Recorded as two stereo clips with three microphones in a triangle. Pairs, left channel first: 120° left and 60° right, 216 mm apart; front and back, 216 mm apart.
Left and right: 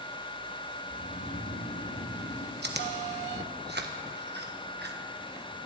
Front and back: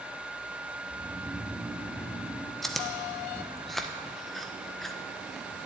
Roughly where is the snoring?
Left.